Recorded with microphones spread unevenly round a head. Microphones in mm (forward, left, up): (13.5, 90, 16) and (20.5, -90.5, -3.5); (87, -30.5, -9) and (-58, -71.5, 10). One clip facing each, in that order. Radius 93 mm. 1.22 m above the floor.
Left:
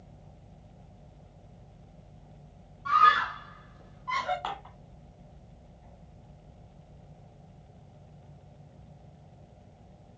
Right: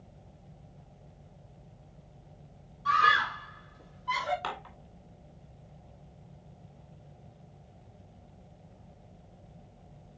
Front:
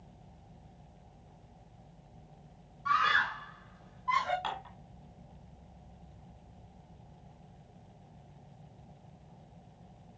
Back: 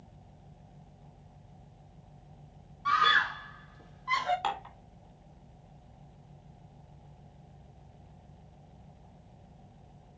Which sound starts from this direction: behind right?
Dishes clattering, at 4.4 s.